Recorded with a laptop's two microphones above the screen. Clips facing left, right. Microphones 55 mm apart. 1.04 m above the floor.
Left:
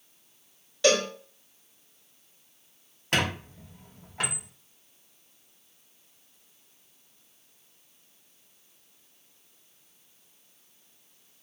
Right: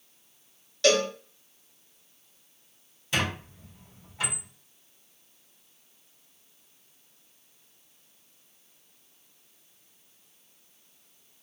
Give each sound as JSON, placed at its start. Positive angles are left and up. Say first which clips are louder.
{"t": 0.8, "sound": "a cowbell", "louder": "even", "side_deg": 10, "distance_m": 0.8}
{"t": 3.1, "sound": "a squeak", "louder": "left 2 dB", "side_deg": 60, "distance_m": 0.7}